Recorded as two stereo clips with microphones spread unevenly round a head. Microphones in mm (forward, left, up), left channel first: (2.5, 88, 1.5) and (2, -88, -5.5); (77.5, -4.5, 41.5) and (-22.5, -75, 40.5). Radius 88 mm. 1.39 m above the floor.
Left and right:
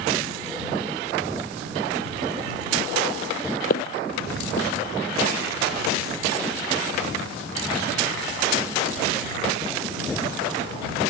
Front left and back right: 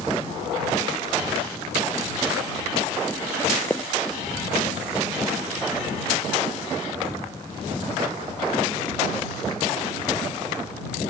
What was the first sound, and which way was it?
Footsteps, 115° left.